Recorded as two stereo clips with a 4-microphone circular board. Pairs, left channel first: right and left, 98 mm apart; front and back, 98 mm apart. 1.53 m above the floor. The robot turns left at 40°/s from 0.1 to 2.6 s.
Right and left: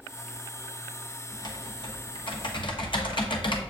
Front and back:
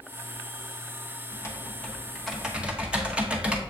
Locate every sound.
1.3 s typing on a keyboard: 50° right, 1.2 m; by 3.6 s 105° right, 1.2 m